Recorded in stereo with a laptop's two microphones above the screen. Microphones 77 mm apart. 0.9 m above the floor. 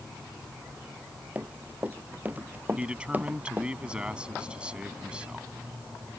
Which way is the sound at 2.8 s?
15° right (ahead or behind).